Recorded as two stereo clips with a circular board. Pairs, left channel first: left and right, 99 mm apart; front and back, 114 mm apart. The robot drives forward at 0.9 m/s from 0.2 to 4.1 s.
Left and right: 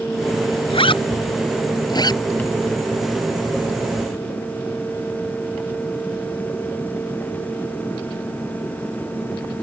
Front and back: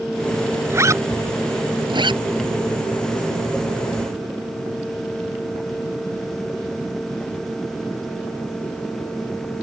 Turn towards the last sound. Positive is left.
turn(degrees=150)